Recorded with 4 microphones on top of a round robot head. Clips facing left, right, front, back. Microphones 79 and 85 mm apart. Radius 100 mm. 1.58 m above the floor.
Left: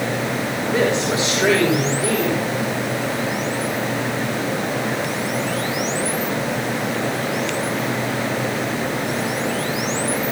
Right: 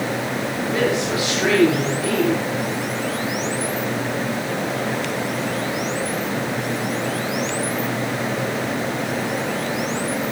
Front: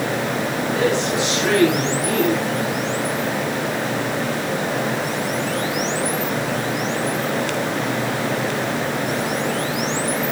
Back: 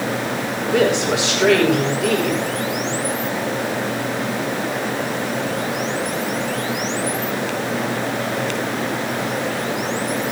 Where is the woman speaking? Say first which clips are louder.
Left 2 dB, back 4 dB; 160° left, 9.5 m.